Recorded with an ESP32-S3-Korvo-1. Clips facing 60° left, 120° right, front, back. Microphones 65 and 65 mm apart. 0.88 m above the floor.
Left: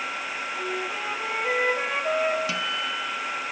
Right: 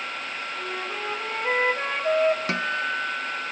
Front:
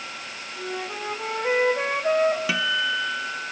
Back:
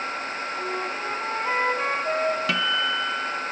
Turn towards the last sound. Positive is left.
turn(degrees=-85)